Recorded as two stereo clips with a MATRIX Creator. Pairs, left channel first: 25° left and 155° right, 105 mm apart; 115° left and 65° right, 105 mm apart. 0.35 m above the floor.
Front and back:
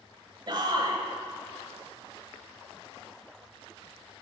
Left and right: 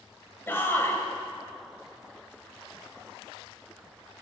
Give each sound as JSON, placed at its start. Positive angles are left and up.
{"t": 0.5, "sound": "a shout", "azimuth_deg": 175, "distance_m": 1.4}